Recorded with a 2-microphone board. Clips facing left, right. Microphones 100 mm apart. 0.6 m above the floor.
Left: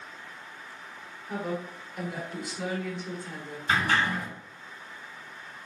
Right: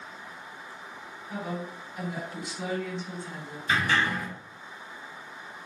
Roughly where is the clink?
No clink in this recording.